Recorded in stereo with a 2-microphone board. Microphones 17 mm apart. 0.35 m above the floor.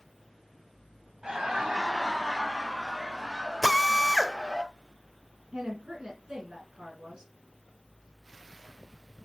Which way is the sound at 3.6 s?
15° left (ahead or behind).